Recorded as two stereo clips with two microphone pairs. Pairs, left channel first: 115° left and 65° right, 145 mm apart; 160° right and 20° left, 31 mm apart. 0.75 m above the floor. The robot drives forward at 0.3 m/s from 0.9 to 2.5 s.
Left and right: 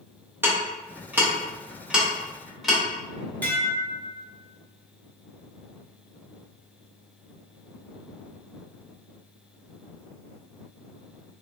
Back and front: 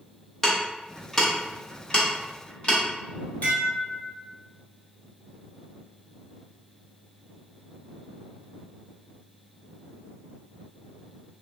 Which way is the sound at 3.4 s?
170° right.